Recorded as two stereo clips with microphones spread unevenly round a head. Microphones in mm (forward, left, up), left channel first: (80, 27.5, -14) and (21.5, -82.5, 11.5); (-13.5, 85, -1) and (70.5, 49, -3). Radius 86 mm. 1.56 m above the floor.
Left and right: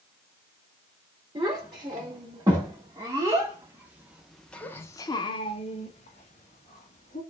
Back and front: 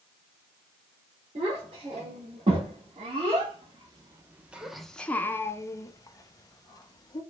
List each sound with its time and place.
1.4 s a child speaking: 65° right, 2.5 m; by 7.2 s 115° left, 1.8 m